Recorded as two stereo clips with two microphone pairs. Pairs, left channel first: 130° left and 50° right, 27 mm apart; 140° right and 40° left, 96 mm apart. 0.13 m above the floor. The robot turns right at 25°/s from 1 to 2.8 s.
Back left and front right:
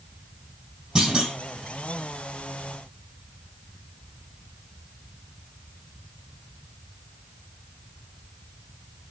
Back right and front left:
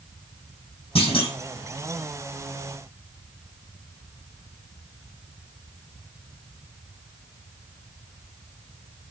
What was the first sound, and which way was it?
A clunk, 115° right.